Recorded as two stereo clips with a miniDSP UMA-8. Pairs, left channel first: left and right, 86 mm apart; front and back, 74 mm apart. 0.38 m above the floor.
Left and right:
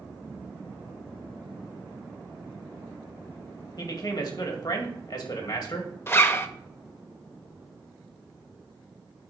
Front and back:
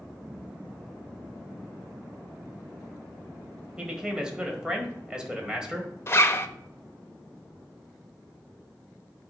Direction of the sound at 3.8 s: 105° left.